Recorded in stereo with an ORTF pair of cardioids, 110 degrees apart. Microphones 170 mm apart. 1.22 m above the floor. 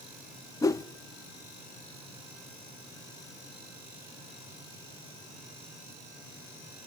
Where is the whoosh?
20° left, 0.5 m.